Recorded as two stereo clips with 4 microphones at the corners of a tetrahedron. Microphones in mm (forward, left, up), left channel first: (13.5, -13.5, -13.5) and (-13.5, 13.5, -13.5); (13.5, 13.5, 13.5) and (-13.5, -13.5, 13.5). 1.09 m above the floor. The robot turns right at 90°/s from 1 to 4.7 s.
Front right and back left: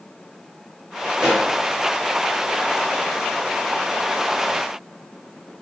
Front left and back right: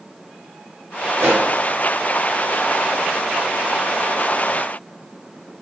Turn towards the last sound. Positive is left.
turn(degrees=160)